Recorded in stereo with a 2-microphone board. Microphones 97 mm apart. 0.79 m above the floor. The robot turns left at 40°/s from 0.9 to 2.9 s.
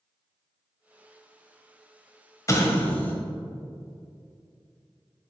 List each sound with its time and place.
2.5 s an explosion: 35° left (ahead or behind), 1.1 m; by 3.1 s 15° left (ahead or behind), 1.1 m